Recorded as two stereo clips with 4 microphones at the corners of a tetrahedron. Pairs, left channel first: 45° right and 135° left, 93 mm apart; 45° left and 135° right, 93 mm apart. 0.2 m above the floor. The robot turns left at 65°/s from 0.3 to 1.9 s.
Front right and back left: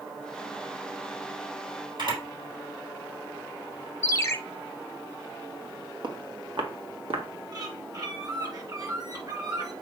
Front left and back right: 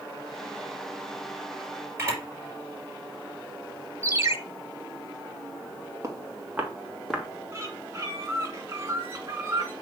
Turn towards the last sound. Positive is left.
turn(degrees=170)